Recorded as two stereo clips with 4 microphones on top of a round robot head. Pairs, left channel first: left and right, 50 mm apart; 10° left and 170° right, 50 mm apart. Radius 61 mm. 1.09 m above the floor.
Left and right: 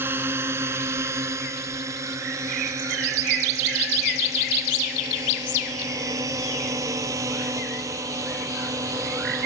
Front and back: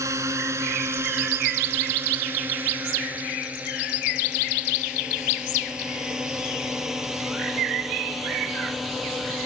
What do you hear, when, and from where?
0.0 s a drone: 140° right; by 9.5 s 85° right